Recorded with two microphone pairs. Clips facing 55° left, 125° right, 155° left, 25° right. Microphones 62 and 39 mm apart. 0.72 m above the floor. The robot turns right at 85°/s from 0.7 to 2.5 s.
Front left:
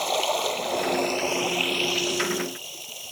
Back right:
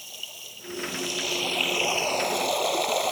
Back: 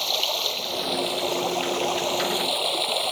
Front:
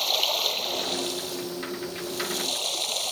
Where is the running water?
65° left; by 3.1 s 145° right.